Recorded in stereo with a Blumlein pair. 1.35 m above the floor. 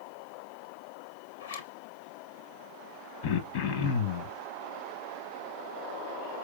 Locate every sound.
1.4 s a zipper: 65° left, 0.8 m
3.2 s throat clearing: 50° left, 0.8 m